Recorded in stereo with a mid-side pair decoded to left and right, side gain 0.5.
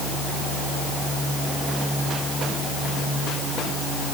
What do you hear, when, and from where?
Only background noise.